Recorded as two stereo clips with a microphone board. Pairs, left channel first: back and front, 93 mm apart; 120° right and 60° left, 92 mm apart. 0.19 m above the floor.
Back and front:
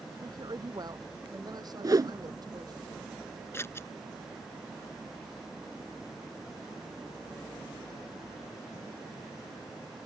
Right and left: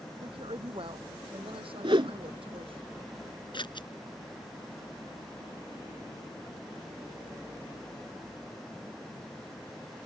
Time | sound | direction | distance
0.2 | a woman speaking | 45° left | ?
1.8 | a whoosh | 45° left | ?
3.5 | scissors | 120° right | ?